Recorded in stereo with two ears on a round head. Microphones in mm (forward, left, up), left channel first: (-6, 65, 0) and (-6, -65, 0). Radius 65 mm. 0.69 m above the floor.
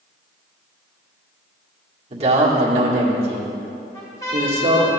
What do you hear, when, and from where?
2.1 s a man speaking: 45° right (ahead or behind), 1.9 m
3.9 s a trumpet: 25° left (ahead or behind), 1.9 m